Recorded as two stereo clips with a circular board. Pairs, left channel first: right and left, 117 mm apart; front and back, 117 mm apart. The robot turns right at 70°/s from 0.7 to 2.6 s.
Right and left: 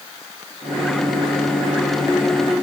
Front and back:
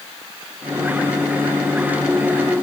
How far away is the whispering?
No whispering in this recording.